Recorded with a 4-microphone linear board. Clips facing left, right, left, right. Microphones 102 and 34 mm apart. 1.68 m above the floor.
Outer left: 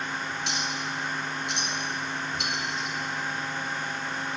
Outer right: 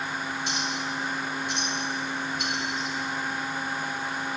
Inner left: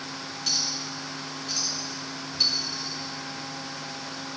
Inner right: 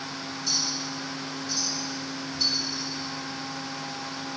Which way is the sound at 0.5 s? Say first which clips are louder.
Outer right 1 dB, inner left 1 dB; 75° left (ahead or behind).